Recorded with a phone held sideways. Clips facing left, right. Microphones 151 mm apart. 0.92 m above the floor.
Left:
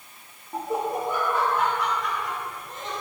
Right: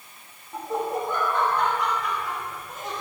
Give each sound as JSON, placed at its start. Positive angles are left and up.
{"t": 0.5, "sound": "laughter", "side_deg": 25, "distance_m": 1.1}